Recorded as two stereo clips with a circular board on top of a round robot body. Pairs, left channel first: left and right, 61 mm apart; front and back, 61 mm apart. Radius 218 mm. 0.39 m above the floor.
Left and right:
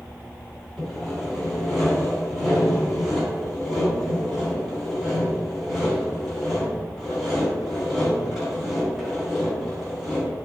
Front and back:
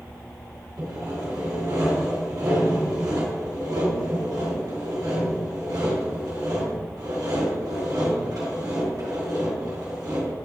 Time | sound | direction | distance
0.8 | sawing | 175° right | 3 m